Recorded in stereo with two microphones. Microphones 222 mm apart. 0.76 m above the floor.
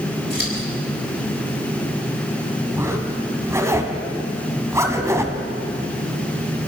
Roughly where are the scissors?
Right.